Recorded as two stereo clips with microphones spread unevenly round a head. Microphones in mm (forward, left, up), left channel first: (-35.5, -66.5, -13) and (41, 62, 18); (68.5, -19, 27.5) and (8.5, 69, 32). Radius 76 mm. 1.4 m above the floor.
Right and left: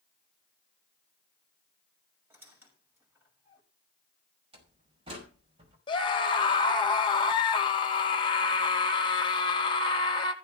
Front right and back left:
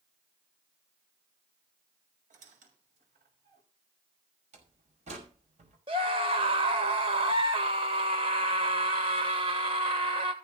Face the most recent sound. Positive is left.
turn(degrees=180)